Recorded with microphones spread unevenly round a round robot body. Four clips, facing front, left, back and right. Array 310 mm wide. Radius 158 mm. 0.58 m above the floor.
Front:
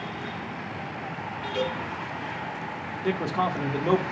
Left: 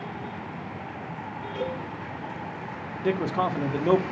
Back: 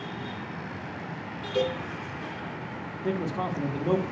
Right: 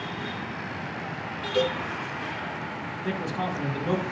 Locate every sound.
1.6 s a cowbell: 150° right, 3.5 m
3.0 s a man speaking: 70° left, 1.5 m